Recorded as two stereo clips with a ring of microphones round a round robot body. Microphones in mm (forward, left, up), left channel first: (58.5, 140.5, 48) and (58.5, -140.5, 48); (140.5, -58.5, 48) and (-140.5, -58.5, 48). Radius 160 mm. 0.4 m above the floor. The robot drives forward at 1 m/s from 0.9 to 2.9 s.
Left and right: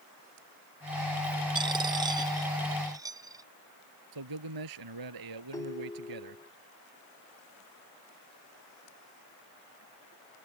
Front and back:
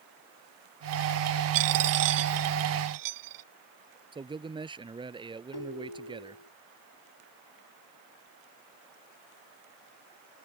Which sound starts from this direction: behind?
A dropped coin, at 1.6 s.